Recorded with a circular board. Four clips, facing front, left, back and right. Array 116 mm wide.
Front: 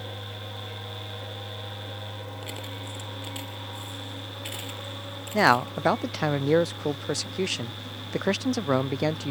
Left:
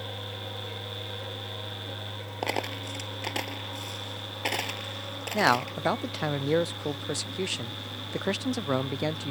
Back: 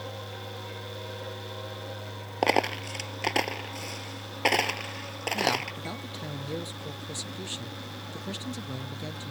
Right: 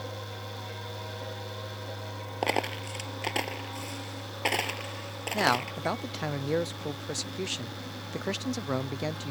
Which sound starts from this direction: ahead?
A man speaking, at 5.3 s.